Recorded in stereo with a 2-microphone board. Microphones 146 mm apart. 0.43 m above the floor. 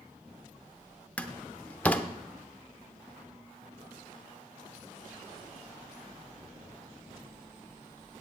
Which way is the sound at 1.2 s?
10° left (ahead or behind).